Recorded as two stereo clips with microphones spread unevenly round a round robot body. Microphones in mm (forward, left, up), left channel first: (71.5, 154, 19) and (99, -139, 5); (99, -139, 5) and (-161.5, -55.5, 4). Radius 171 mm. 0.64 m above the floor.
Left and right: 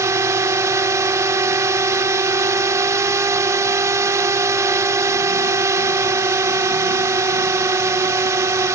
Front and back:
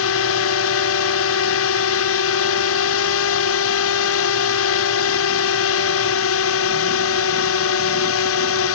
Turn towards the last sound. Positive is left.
turn(degrees=-5)